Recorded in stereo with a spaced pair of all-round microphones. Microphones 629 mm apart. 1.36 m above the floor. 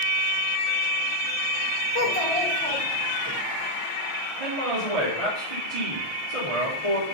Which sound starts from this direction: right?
A man speaking, at 4.4 s.